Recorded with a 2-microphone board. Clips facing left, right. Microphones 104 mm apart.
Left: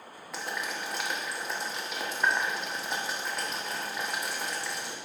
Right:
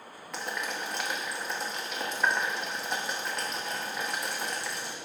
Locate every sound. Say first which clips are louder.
0.3 s boiling: right 1 dB; centre (ahead or behind), 1.2 m